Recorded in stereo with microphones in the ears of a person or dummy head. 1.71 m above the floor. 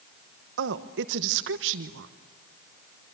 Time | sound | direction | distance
0.6 | a woman speaking | 60° right (ahead or behind) | 1.1 m